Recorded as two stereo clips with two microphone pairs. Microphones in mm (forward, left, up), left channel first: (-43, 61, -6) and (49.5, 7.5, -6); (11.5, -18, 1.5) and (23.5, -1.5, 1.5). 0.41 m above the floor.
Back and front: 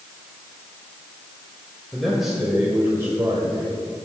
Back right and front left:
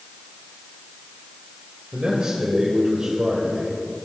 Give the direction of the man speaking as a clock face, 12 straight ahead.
10 o'clock.